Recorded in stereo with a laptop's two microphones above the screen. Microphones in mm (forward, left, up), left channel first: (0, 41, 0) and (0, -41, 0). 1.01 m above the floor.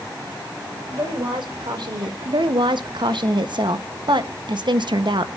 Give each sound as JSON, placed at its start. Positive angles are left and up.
{"t": 0.9, "sound": "a woman speaking", "side_deg": -70, "distance_m": 4.0}
{"t": 2.2, "sound": "a woman speaking", "side_deg": -70, "distance_m": 1.1}